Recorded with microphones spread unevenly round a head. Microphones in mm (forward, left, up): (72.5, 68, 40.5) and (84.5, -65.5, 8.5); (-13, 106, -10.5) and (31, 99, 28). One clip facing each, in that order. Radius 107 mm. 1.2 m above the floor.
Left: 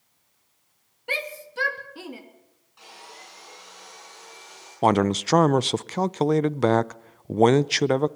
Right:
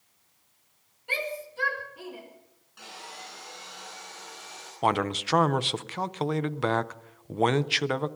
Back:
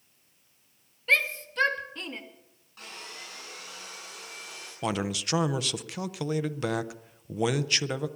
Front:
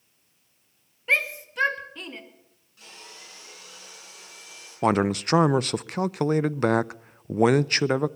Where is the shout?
70° left, 2.5 m; by 2.2 s 95° left, 2.5 m.